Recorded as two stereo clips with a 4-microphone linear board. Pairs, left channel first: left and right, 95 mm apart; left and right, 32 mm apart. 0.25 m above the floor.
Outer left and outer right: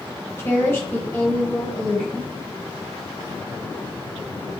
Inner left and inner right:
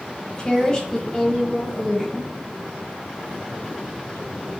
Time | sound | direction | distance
0.4 | a woman speaking | 25° left (ahead or behind) | 1.0 m